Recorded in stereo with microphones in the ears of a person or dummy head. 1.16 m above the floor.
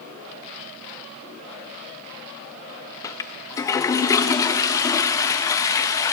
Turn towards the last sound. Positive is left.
turn(degrees=15)  # may be behind; listen again after turning